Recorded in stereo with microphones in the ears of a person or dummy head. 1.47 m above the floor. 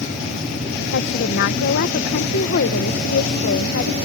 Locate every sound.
0.9 s a woman speaking: 50° left (ahead or behind)